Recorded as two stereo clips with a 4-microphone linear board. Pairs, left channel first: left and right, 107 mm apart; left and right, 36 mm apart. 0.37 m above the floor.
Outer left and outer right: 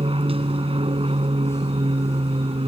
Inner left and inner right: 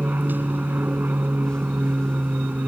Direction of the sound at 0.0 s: 55° right (ahead or behind).